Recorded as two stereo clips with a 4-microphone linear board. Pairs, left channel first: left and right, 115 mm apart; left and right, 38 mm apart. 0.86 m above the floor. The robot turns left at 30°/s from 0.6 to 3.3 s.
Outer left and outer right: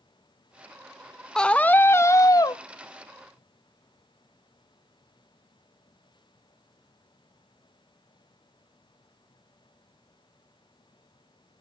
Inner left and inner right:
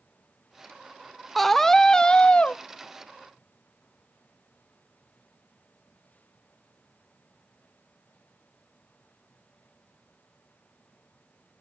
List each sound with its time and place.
1.4 s a scream: 175° left, 0.5 m; by 2.6 s 135° left, 0.5 m